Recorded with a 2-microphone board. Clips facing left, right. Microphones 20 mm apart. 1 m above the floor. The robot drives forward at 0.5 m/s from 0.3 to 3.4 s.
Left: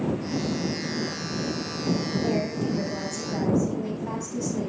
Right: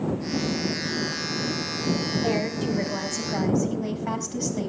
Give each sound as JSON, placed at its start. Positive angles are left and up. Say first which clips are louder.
{"t": 2.2, "sound": "a woman speaking", "louder": "right 1 dB", "side_deg": -45, "distance_m": 5.5}